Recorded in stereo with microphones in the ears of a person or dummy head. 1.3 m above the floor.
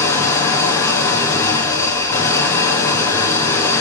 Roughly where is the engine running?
Centre.